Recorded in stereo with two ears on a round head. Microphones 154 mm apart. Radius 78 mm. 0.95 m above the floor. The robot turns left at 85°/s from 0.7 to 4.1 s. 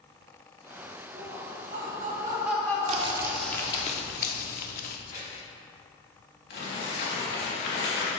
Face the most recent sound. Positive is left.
turn(degrees=65)  # may be behind; listen again after turning